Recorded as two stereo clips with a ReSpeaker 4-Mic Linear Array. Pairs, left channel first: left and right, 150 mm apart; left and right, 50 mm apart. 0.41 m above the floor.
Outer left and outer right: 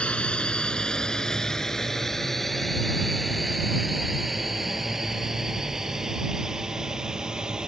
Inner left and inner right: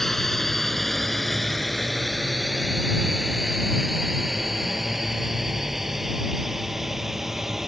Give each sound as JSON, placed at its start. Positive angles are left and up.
{"t": 0.0, "sound": "a drone", "side_deg": 5}